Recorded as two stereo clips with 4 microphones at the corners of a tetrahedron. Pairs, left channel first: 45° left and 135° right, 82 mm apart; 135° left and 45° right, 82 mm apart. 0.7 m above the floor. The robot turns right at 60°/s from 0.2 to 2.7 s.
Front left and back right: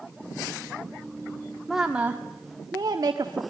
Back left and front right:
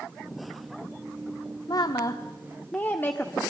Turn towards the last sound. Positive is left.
turn(degrees=-165)